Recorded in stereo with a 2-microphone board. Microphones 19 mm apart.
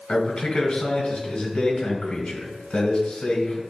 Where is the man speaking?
65° left (ahead or behind), 2.5 m.